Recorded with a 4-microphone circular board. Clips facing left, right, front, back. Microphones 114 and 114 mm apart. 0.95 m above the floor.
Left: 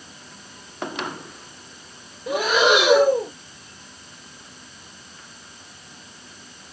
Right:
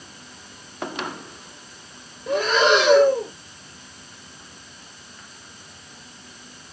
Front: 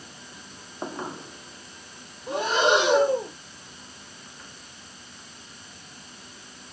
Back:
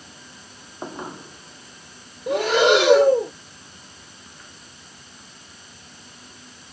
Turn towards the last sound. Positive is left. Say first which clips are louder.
# even, back 5 dB
turn(degrees=170)